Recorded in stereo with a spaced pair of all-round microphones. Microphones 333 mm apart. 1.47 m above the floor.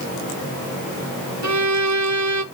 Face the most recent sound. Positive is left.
turn(degrees=-55)  # may be behind; listen again after turning